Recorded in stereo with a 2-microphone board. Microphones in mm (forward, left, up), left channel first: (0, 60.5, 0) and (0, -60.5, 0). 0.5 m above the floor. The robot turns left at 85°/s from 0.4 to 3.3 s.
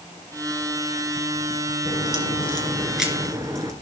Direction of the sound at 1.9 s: 95° left.